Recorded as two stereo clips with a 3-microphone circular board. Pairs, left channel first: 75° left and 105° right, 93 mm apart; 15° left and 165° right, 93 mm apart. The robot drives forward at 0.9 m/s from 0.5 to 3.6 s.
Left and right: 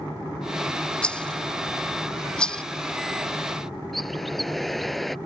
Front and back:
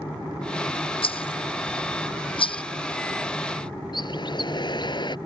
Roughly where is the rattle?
Ahead.